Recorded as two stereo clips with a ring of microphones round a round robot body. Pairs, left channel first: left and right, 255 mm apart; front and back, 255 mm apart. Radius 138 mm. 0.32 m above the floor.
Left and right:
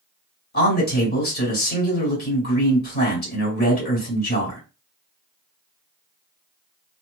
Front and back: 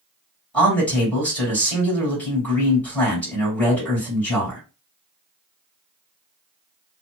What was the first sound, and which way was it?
A man speaking, 80° left.